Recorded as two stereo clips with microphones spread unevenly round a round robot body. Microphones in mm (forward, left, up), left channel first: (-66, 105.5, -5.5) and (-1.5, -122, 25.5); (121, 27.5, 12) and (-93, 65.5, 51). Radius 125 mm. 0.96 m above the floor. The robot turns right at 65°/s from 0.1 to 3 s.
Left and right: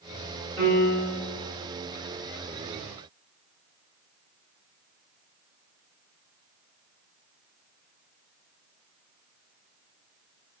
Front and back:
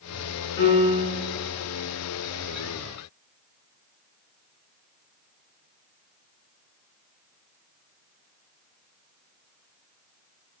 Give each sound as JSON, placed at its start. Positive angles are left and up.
{"t": 0.6, "sound": "a piano", "azimuth_deg": -30, "distance_m": 1.8}